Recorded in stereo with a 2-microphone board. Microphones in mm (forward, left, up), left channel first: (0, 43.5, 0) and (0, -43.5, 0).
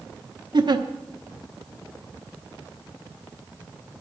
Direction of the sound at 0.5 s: 60° right (ahead or behind).